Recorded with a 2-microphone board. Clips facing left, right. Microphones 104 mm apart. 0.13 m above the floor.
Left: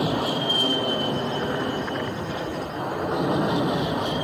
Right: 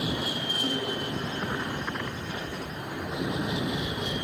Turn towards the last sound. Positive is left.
turn(degrees=70)  # may be behind; listen again after turning